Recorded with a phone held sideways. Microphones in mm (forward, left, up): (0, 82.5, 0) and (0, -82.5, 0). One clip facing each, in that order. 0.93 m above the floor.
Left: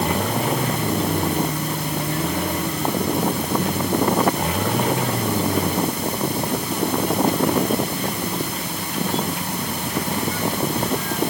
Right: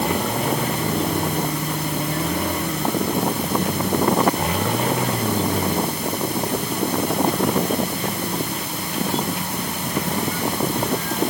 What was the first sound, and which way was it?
Only background noise.